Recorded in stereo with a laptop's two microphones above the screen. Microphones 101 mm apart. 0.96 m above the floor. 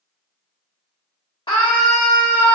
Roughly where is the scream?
Left.